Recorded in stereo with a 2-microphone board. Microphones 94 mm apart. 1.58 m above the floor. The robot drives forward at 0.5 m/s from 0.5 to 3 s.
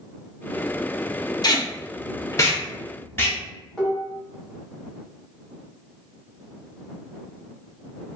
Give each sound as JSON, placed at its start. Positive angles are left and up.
{"t": 1.4, "sound": "tape being pulled", "side_deg": 45, "distance_m": 0.6}
{"t": 3.8, "sound": "dishes clattering", "side_deg": 5, "distance_m": 1.1}